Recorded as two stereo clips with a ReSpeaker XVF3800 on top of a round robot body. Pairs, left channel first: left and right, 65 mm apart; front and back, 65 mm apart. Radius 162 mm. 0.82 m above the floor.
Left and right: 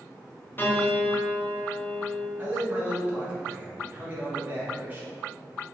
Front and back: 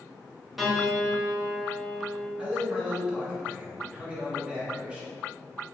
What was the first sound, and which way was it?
A piano, 95° left.